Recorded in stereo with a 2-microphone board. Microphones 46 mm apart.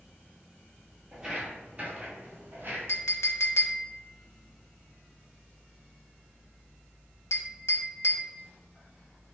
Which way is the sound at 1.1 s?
15° right (ahead or behind).